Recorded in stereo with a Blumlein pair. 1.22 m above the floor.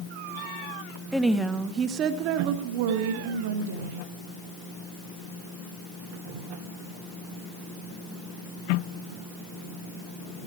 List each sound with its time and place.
1.1 s a woman speaking: straight ahead, 0.8 m; by 4.1 s 65° right, 1.7 m